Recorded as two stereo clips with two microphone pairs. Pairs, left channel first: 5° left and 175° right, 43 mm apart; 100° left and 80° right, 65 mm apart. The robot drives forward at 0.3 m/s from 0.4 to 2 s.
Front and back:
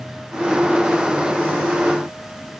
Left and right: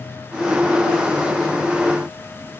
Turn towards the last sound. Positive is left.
No sound to turn to.